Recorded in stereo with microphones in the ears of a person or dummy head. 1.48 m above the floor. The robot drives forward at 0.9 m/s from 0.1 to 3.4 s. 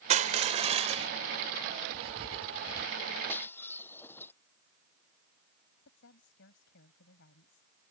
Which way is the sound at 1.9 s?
30° right (ahead or behind).